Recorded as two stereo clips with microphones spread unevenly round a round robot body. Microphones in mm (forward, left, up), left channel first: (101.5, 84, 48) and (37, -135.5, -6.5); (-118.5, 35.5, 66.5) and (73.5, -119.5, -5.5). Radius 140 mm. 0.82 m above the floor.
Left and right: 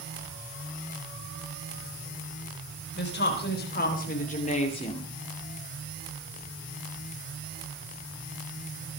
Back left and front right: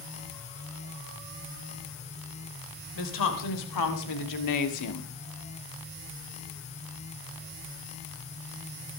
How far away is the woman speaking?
About 4.5 m.